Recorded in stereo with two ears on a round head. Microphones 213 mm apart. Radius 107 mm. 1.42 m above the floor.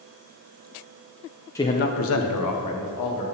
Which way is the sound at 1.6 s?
10° left (ahead or behind).